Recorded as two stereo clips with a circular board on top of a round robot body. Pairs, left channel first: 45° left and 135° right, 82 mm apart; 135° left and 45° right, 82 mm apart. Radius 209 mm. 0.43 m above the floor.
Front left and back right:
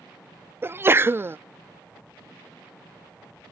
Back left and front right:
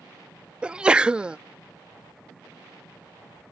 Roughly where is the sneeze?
Right.